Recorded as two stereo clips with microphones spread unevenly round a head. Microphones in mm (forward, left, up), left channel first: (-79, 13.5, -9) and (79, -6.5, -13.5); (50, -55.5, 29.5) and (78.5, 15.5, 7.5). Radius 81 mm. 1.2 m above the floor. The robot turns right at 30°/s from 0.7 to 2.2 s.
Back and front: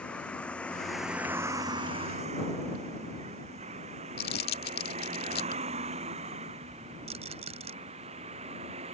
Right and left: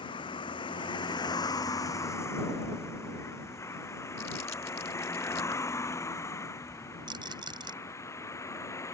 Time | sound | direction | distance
0.0 | a vehicle | 105° right | ?
4.2 | crumpling | 175° right | ?
7.1 | a rattle | 45° left | ?